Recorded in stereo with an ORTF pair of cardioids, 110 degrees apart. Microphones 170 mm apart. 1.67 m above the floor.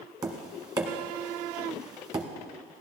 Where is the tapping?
20° right, 1.5 m.